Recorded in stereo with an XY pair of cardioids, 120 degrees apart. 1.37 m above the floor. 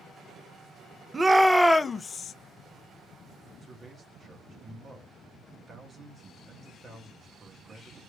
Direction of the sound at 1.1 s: 25° right.